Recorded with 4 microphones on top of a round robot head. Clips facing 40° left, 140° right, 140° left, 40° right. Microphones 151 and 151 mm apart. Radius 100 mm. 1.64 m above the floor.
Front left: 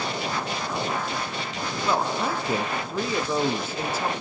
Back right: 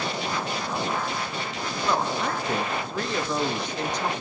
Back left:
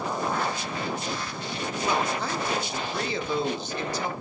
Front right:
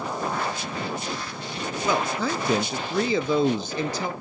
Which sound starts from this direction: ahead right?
A man speaking, at 1.8 s.